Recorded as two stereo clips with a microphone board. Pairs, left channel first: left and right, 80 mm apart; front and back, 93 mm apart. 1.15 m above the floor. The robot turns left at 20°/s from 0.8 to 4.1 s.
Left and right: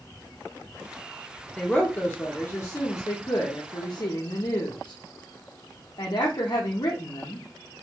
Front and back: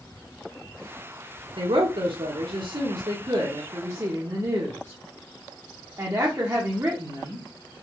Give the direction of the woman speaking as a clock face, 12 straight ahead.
6 o'clock.